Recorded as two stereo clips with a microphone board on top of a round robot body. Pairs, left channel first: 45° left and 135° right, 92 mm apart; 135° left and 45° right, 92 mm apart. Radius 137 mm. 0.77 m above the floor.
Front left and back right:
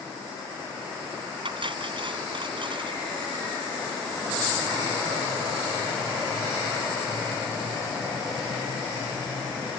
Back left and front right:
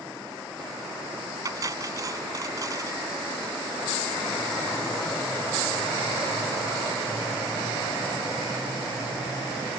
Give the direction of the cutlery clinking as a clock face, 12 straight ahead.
3 o'clock.